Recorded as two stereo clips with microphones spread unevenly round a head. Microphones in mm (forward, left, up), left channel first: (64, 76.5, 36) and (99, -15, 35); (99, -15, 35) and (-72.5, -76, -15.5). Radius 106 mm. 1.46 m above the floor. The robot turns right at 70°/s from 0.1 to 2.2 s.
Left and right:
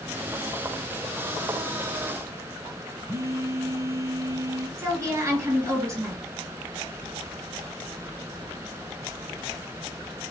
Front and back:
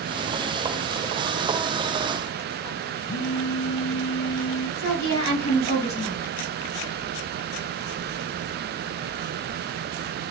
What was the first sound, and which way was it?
A phone buzzing, 10° right.